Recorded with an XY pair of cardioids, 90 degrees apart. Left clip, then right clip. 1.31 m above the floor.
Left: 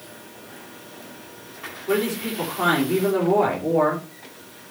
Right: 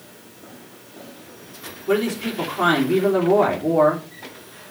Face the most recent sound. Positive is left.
turn(degrees=-45)